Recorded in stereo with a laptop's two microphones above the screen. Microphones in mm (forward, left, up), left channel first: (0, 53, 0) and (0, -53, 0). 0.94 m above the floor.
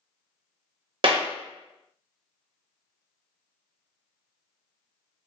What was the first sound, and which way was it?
A clap, 50° right (ahead or behind).